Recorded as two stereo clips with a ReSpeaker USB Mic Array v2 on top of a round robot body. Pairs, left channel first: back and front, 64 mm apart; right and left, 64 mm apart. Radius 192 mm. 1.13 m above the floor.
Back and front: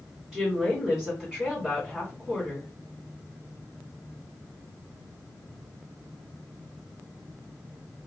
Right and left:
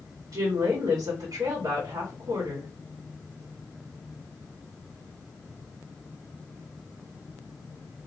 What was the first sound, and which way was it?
A woman speaking, 85° left.